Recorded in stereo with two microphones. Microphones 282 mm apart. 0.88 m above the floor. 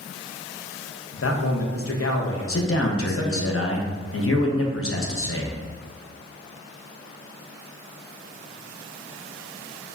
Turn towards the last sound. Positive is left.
turn(degrees=50)  # may be behind; listen again after turning